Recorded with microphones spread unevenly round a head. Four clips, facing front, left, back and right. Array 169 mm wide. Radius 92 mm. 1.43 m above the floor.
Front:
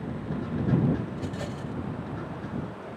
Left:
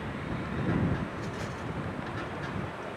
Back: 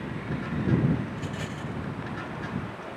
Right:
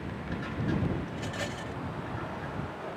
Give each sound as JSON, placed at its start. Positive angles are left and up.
{"t": 1.1, "sound": "a rattle", "azimuth_deg": -25}